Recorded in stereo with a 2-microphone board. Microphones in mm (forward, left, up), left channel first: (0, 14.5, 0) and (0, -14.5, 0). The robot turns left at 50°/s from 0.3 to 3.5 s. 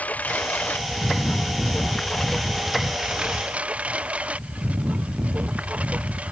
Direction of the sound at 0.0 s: 65° left (ahead or behind).